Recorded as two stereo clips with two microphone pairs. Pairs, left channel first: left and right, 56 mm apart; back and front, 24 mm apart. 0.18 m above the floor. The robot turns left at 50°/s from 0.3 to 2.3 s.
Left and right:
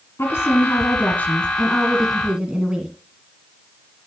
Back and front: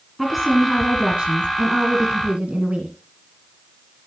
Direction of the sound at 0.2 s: 85° left.